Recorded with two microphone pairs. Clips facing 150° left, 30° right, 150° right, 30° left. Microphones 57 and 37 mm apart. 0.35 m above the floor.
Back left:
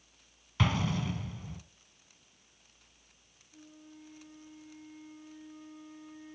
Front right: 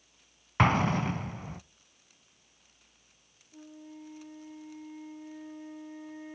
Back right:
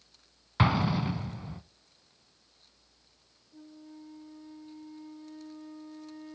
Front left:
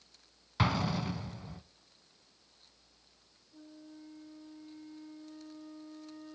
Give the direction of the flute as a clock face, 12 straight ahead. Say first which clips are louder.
Front right 6 dB, back right 3 dB; 2 o'clock.